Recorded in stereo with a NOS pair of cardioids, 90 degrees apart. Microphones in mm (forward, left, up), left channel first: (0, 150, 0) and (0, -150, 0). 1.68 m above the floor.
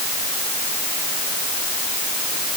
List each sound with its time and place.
Only background noise.